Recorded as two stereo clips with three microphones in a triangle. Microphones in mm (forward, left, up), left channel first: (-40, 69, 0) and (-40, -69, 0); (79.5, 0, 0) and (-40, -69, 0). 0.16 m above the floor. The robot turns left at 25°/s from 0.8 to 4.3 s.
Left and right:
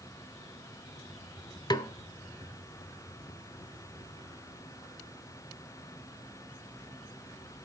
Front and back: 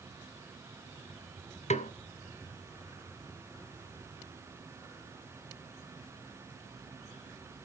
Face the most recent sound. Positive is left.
turn(degrees=-25)